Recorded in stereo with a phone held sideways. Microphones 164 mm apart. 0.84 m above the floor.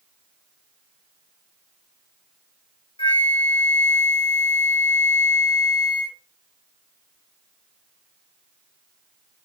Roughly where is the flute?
Left.